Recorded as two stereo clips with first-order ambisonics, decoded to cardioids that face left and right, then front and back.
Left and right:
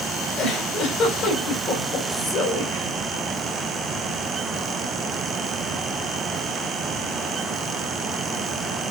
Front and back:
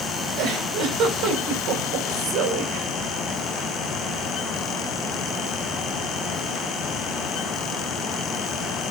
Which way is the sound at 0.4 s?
145° left.